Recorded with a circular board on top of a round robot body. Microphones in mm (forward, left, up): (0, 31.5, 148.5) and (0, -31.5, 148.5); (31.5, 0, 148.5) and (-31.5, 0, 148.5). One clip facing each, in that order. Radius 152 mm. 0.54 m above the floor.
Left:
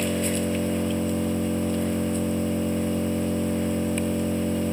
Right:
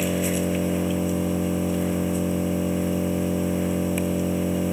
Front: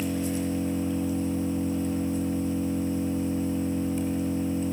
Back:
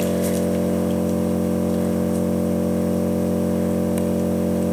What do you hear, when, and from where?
0.0 s an engine running: 175° right, 1.2 m